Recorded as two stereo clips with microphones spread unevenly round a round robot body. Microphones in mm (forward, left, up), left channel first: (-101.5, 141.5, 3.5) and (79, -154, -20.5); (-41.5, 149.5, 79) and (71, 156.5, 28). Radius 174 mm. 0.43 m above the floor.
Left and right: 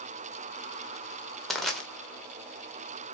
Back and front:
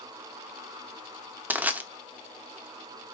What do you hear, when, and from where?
1.5 s crushing: 30° left, 1.4 m